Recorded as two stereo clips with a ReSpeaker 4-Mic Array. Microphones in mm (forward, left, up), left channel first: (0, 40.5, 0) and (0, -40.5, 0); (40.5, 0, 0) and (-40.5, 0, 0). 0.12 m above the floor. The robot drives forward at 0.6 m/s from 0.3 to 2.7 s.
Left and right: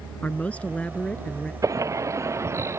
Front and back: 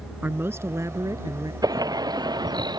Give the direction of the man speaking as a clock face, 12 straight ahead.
7 o'clock.